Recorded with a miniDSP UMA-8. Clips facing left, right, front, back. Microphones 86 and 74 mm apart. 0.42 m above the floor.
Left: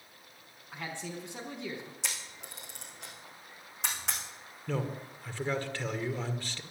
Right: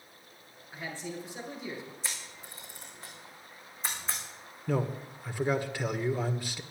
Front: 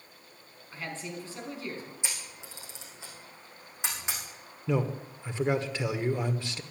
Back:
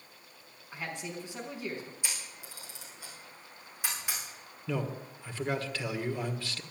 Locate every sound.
0.7 s a man speaking: 105° left, 4 m
2.0 s a camera shutter: 70° left, 5.5 m
4.7 s a man speaking: 30° right, 1.3 m